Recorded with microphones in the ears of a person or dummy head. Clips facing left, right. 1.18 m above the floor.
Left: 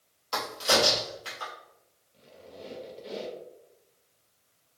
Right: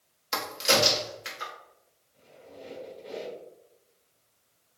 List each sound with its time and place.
0.3 s a crack: 25° right (ahead or behind), 0.7 m
2.1 s a squeak: 30° left (ahead or behind), 0.9 m